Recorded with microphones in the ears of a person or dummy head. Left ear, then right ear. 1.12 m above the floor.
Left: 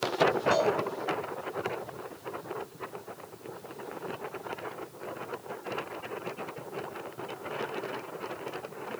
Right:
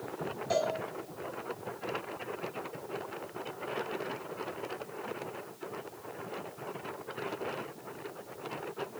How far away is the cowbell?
About 0.9 m.